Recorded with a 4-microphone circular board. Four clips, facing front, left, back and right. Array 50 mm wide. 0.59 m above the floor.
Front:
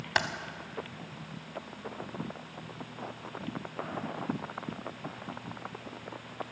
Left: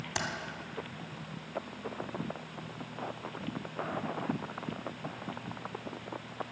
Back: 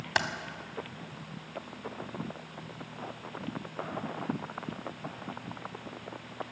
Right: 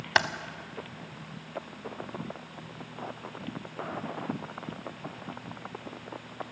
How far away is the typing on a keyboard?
About 0.7 m.